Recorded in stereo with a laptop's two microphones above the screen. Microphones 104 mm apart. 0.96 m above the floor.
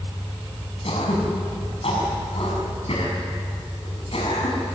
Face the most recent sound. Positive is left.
turn(degrees=65)  # may be behind; listen again after turning